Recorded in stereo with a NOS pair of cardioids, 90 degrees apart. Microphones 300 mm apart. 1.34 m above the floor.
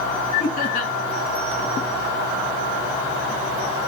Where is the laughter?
30° left, 2.5 m.